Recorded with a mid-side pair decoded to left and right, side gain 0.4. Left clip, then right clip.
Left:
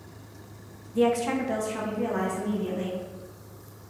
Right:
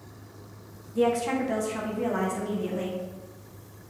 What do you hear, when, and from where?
0.9 s a woman speaking: 25° left, 0.8 m; by 3.0 s 25° right, 1.8 m